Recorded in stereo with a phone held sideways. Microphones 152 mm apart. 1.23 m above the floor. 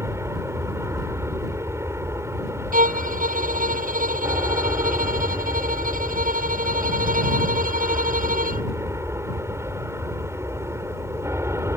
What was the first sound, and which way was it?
An aircraft, 15° right (ahead or behind).